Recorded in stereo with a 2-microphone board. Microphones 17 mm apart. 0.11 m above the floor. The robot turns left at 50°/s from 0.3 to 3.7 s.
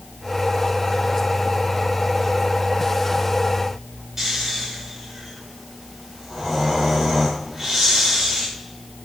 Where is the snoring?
20° right (ahead or behind), 6.5 m.